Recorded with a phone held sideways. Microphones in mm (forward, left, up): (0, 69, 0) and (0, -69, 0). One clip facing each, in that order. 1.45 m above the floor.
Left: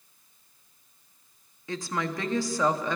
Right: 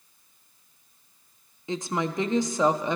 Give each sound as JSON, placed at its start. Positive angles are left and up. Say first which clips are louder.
{"t": 1.7, "sound": "a woman speaking", "louder": "right 3 dB", "side_deg": -20, "distance_m": 0.7}